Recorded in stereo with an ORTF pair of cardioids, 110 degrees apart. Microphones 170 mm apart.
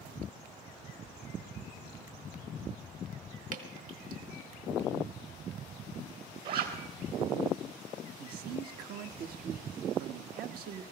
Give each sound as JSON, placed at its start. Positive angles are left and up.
{"t": 3.5, "sound": "dripping", "azimuth_deg": -55, "distance_m": 1.9}
{"t": 6.5, "sound": "a zipper", "azimuth_deg": -65, "distance_m": 3.5}
{"t": 8.2, "sound": "a man speaking", "azimuth_deg": -65, "distance_m": 1.2}